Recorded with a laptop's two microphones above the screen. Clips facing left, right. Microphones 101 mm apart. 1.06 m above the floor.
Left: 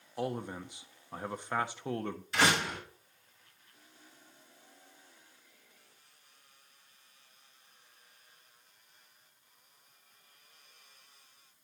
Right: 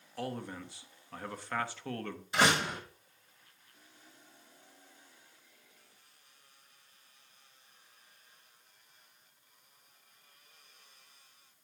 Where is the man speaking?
20° left (ahead or behind), 0.6 m.